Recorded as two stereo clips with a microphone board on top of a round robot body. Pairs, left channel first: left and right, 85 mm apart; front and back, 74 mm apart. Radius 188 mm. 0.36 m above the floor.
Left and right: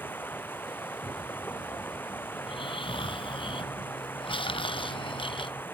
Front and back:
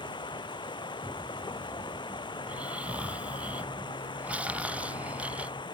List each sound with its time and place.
0.0 s running water: 20° left
2.4 s snoring: 105° left